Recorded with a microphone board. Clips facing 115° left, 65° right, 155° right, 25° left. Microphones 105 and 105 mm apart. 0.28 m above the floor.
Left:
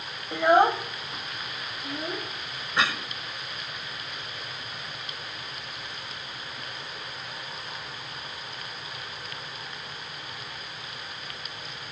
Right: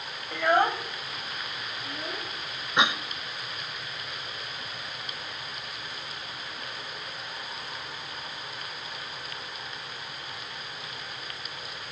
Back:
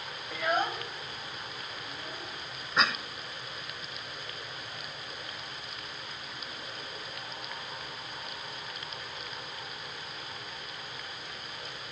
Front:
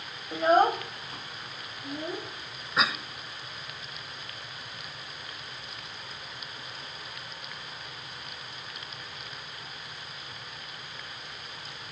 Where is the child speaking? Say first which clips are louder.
Left 4 dB, front 9 dB; 60° left, 0.6 m; by 2.3 s 45° left, 3 m.